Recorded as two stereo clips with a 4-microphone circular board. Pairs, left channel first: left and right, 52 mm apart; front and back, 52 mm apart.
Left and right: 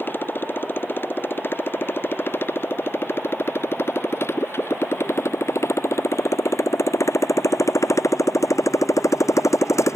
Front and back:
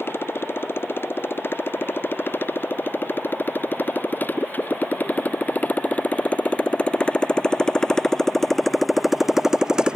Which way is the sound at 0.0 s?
40° left.